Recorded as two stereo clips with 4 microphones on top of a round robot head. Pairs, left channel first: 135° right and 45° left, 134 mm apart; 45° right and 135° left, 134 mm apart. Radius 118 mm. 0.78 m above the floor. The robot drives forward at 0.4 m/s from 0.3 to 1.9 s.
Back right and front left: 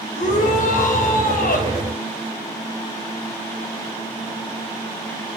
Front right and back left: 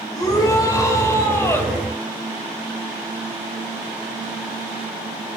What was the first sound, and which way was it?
A shout, 110° right.